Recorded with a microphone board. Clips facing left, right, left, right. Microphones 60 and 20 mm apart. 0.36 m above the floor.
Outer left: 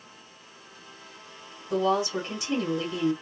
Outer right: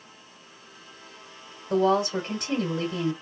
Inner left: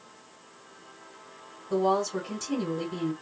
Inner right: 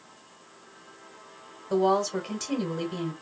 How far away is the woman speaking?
About 1.4 m.